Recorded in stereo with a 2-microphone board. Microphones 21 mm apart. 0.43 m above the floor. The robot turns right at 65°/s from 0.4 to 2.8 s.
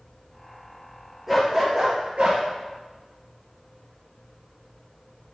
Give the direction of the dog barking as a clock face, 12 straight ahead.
6 o'clock.